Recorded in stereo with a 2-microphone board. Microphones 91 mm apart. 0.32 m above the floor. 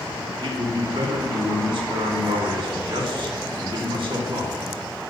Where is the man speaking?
70° right (ahead or behind), 2.5 m.